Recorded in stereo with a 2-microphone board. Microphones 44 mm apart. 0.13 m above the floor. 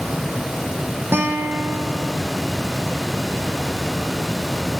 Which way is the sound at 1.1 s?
65° right (ahead or behind).